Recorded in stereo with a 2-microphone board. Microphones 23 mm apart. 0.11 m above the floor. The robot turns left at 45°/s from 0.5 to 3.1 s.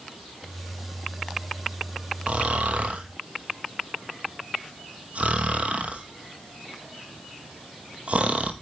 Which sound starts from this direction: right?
Snoring, at 2.3 s.